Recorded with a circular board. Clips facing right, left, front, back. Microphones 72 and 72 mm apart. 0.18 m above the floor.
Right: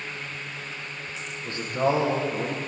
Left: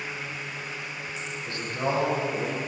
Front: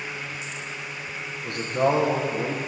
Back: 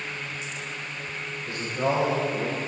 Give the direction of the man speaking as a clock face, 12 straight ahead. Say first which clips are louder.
Right 5 dB, front 4 dB; 1 o'clock.